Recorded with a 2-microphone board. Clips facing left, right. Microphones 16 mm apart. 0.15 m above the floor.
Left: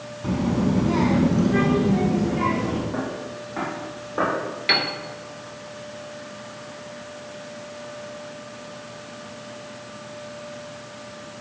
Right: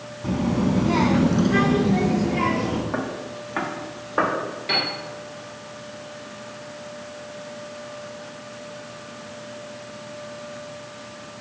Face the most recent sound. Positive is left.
turn(degrees=45)  # may be behind; listen again after turning